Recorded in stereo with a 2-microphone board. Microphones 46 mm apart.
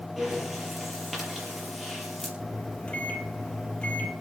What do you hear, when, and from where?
0.2 s breathing: centre (ahead or behind), 5.5 m
2.4 s a microwave: 25° left (ahead or behind), 3.5 m